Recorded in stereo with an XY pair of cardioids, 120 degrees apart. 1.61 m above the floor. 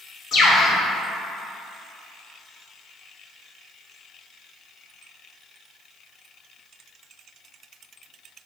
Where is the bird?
55° left, 1.1 m.